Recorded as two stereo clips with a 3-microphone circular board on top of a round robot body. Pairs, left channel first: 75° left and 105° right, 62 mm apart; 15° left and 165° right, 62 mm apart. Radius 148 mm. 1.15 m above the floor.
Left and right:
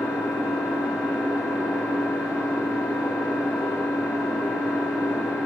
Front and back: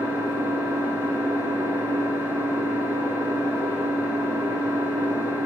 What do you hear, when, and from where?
0.0 s an engine running: 175° left, 9 m